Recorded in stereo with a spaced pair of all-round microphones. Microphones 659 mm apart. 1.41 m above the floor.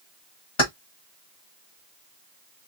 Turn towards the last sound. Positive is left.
turn(degrees=50)  # may be behind; listen again after turning